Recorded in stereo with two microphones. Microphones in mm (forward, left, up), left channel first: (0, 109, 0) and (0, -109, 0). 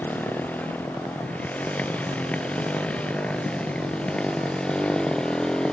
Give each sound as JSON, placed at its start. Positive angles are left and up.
{"t": 0.0, "sound": "a motorcycle", "side_deg": 5}